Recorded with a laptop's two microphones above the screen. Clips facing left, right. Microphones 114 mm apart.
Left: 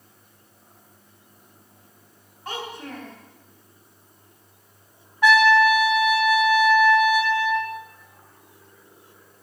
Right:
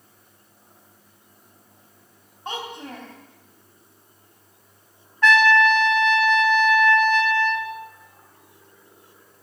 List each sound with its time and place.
2.5 s a child speaking: 25° right (ahead or behind), 4 m
5.2 s a trumpet: 10° left (ahead or behind), 1.4 m